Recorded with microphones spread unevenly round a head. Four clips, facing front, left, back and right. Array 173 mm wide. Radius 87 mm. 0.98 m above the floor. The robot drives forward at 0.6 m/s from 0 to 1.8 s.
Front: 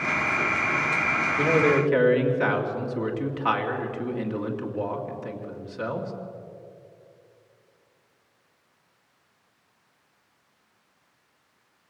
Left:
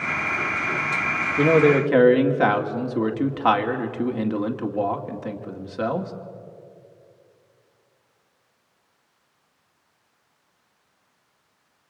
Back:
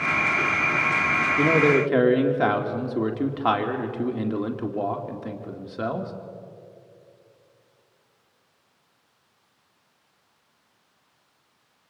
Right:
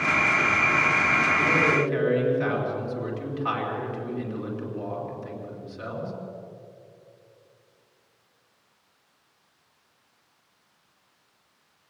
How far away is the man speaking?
About 2.5 m.